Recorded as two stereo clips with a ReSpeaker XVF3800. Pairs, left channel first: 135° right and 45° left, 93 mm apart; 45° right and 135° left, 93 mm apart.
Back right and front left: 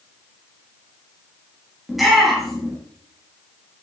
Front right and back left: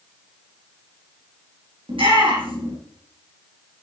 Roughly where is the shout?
Behind left.